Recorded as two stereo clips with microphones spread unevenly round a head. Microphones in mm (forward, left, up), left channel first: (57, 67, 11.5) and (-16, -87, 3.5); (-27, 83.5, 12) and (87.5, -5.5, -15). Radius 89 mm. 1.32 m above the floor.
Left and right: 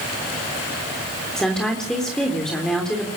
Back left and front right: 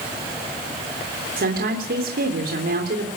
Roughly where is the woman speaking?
Ahead.